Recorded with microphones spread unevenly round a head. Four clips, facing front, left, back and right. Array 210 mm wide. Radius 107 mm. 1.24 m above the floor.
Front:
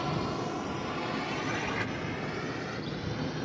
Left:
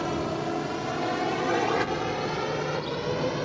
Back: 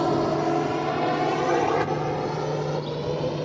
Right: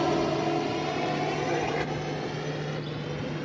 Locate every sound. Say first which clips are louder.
0.0 s a drone: right 3 dB, back 10 dB; 160° right; by 3.5 s 150° left